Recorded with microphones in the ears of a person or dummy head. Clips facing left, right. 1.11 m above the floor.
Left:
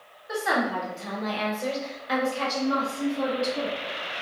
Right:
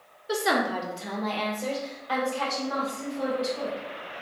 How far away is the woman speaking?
About 0.9 m.